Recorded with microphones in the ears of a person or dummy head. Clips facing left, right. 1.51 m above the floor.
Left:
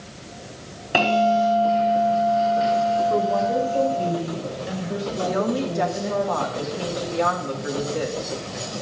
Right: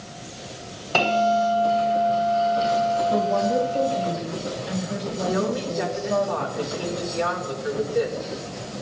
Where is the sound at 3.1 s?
60° left (ahead or behind), 4 m.